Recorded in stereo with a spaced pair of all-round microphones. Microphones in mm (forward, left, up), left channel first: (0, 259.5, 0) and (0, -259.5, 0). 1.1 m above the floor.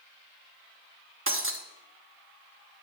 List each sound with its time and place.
1.3 s breaking glass: 25° right (ahead or behind), 0.9 m